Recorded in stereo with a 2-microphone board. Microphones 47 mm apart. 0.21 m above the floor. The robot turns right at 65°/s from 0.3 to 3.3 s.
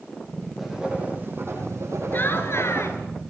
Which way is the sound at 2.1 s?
50° left.